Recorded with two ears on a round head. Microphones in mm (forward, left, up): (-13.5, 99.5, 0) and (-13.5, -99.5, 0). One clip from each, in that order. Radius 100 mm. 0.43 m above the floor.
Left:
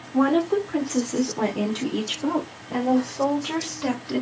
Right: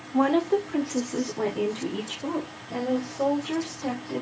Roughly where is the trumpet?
No trumpet in this recording.